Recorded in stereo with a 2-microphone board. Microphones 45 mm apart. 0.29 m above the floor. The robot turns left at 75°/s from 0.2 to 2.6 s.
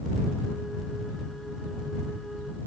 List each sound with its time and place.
Only background noise.